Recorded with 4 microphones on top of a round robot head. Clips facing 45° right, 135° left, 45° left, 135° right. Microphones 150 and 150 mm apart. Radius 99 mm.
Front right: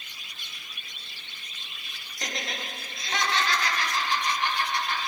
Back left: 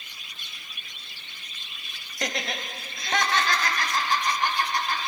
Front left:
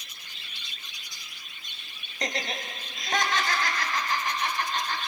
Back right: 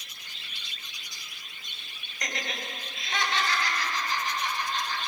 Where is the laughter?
105° left, 3 m; by 5.0 s 80° left, 4 m.